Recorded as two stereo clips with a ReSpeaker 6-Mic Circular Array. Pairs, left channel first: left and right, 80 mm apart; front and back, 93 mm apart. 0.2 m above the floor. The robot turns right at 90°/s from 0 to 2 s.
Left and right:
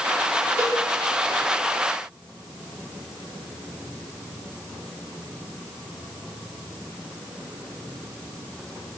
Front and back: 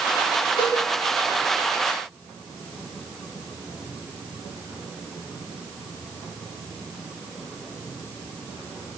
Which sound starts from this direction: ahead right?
A cowbell, at 0.6 s.